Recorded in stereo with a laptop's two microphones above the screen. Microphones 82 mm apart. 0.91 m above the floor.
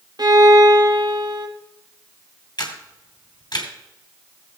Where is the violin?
55° right (ahead or behind), 1.0 m.